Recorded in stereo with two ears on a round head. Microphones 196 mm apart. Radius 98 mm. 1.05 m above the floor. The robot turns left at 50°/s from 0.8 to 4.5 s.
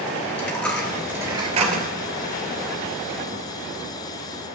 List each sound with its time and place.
0.3 s a dropped coin: 5° left (ahead or behind), 2.5 m; by 1.9 s 45° right (ahead or behind), 2.5 m